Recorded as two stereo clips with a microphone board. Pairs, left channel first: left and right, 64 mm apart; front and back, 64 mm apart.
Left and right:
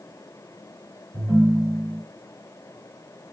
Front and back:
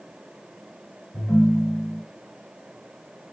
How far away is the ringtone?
About 1.5 m.